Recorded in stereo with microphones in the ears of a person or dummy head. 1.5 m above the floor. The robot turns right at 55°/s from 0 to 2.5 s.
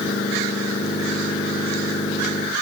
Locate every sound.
Only background noise.